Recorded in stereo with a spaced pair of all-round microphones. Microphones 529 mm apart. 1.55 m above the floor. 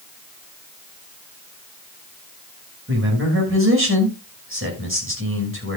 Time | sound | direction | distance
2.9 | a man speaking | 25° right (ahead or behind) | 6 m